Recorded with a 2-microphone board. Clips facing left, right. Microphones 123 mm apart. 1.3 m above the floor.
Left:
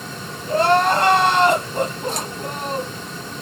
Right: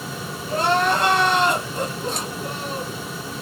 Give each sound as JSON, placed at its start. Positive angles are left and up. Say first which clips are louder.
{"t": 0.5, "sound": "crying", "louder": "left 4 dB", "side_deg": 60, "distance_m": 3.0}